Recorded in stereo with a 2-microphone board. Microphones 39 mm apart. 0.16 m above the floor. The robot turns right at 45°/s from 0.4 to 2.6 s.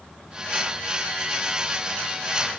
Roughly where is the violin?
No violin in this recording.